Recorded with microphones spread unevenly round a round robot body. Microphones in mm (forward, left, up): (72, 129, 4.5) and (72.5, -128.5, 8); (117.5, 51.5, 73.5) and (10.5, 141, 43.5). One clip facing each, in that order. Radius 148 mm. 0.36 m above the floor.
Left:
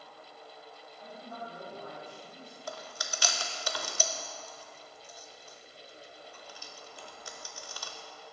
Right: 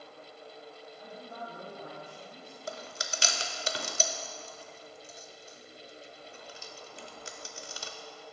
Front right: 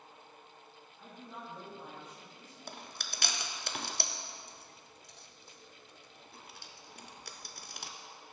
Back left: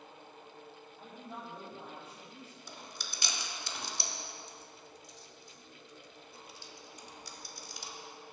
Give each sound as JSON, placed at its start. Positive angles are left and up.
{"t": 1.0, "sound": "a man speaking", "azimuth_deg": -170, "distance_m": 3.5}
{"t": 2.7, "sound": "chewing", "azimuth_deg": -35, "distance_m": 0.6}